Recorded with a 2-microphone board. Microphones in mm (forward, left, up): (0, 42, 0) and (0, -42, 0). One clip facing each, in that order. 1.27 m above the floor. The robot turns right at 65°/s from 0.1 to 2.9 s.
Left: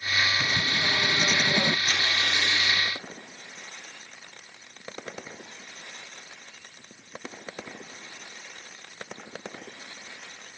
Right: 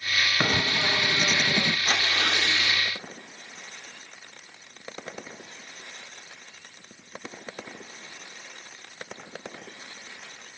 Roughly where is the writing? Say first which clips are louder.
Right 2 dB; ahead right.